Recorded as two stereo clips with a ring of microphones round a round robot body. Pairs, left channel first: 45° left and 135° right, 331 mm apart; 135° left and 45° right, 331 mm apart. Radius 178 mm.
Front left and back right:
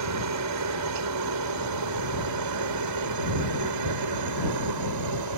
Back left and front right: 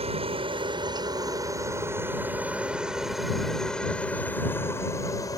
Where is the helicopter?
115° right; by 5.4 s 150° right.